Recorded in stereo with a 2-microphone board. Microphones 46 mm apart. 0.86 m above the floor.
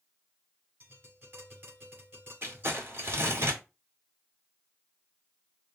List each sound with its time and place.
0.8 s tapping: 50° right (ahead or behind), 4 m
2.4 s crumpling: 60° right (ahead or behind), 1.9 m